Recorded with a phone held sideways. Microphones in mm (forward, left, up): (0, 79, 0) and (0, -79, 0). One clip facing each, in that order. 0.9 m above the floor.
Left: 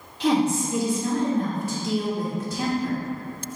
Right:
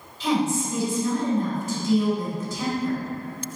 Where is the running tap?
I don't hear a running tap.